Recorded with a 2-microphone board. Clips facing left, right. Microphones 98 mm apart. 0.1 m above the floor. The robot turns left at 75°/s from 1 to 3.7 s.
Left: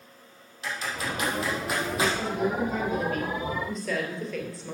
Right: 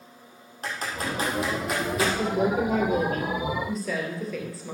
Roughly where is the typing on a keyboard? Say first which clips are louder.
Right 1 dB; right.